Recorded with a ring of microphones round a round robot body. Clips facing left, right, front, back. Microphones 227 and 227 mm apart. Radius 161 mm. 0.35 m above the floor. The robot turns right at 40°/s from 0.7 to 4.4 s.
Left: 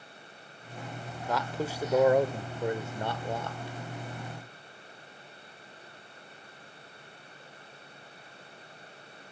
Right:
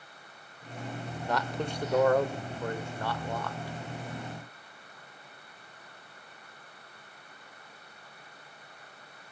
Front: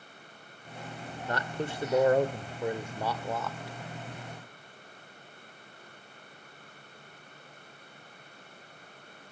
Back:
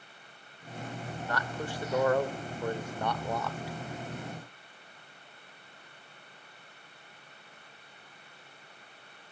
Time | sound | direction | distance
1.3 | a man speaking | straight ahead | 0.9 m